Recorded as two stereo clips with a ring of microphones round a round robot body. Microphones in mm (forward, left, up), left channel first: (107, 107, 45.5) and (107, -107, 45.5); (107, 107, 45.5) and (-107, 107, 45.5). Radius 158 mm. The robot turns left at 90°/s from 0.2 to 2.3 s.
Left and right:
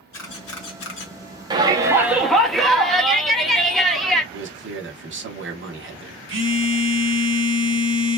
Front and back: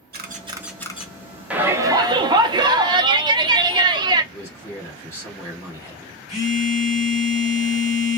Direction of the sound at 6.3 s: 65° right.